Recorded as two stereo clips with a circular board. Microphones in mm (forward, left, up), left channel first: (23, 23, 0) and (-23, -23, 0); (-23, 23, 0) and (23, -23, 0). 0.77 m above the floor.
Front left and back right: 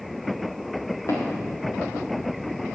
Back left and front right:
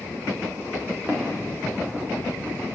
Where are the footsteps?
10° left, 4.5 m.